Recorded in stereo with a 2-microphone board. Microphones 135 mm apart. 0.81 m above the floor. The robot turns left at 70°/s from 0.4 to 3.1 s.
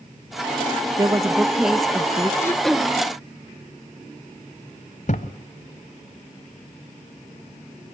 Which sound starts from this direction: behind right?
A woman speaking, at 1.0 s.